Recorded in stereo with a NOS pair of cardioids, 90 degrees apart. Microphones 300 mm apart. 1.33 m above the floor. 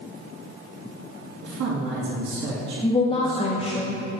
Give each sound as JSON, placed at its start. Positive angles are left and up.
{"t": 1.4, "sound": "a woman speaking", "azimuth_deg": -60, "distance_m": 3.0}
{"t": 2.8, "sound": "a woman speaking", "azimuth_deg": 20, "distance_m": 1.1}